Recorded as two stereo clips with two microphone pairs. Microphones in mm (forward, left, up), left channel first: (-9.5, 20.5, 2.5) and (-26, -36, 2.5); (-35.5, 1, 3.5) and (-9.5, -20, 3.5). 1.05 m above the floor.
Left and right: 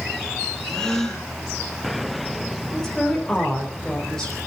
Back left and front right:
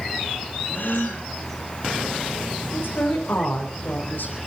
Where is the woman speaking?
155° left, 4 m.